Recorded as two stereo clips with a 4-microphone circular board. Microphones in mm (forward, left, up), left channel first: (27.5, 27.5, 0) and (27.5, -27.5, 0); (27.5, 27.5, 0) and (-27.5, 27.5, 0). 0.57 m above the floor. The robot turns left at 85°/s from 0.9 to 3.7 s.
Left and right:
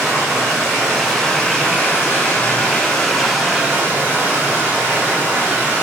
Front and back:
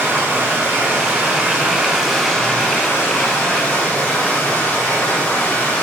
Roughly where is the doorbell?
I don't hear a doorbell.